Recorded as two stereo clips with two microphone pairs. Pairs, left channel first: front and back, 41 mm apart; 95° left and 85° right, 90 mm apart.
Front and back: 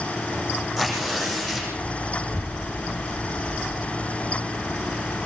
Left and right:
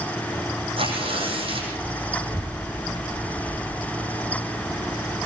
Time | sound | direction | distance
0.8 | tearing paper | 95° right | 9 m
2.2 | a child speaking | 120° right | 1.2 m